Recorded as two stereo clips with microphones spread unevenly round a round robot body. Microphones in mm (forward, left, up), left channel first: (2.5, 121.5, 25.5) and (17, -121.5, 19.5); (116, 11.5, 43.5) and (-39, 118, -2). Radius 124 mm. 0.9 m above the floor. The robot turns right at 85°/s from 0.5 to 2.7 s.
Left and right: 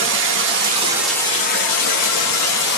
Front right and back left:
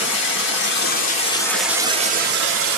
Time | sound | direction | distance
0.0 | running water | 45° right | 1.0 m